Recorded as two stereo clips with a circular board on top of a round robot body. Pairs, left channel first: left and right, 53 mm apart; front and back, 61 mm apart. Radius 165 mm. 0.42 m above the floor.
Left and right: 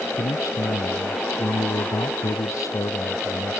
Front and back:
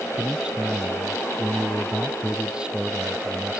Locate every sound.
0.2 s a man speaking: 105° left